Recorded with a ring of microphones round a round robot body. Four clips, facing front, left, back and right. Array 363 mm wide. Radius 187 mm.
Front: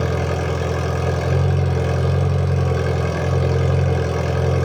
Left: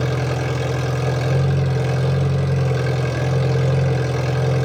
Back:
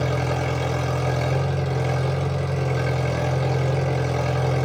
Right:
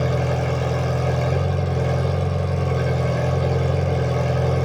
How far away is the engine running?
About 1.5 m.